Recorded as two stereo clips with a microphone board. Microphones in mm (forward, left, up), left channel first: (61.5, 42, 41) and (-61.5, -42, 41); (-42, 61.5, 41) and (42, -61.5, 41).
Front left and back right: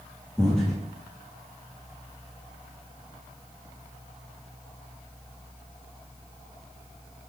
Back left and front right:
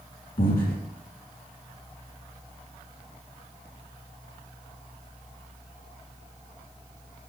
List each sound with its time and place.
0.4 s breathing: 120° left, 2.5 m